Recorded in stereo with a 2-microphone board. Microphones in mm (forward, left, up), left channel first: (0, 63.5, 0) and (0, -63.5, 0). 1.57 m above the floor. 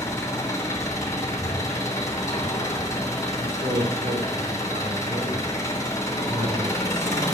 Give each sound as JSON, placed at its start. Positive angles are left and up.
{"t": 0.0, "sound": "an engine running", "side_deg": 25, "distance_m": 3.0}
{"t": 3.4, "sound": "a man speaking", "side_deg": -65, "distance_m": 4.0}